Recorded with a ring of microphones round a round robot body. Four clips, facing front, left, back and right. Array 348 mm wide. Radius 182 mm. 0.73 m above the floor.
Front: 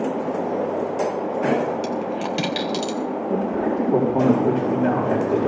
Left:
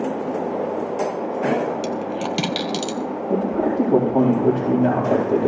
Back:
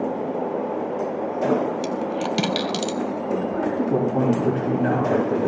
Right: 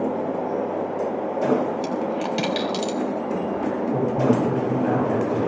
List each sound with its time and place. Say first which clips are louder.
1.8 s a dropped coin: even, even; 135° left, 0.6 m
3.3 s a man speaking: left 4 dB, front 2 dB; 110° left, 4.5 m